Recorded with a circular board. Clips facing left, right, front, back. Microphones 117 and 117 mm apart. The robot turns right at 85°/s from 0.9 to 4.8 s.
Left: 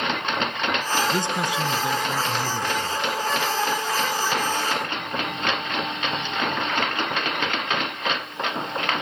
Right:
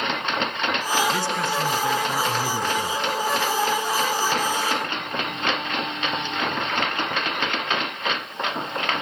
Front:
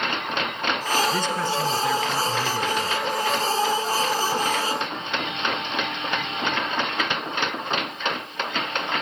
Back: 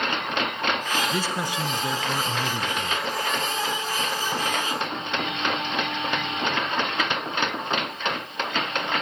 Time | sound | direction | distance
1.1 | a man speaking | 105° left | 1.1 m